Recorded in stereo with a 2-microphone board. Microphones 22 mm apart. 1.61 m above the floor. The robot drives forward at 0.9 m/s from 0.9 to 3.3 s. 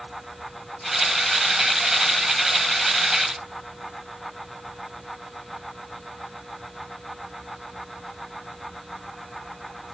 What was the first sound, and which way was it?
Only background noise.